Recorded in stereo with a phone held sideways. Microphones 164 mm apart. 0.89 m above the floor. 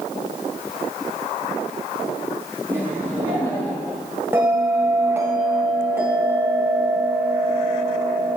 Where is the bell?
15° right (ahead or behind), 3 m.